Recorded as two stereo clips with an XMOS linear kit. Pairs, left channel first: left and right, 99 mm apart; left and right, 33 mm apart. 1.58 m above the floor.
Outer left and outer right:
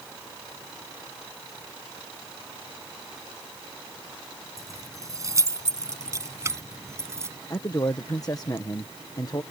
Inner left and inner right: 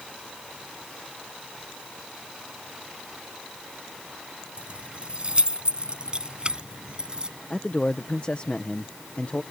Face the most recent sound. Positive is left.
turn(degrees=35)  # may be behind; listen again after turning